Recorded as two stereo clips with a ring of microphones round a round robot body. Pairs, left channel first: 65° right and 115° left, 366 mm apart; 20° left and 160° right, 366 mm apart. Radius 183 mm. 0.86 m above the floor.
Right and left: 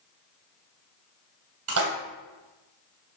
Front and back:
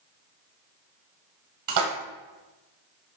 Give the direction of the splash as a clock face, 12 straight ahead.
7 o'clock.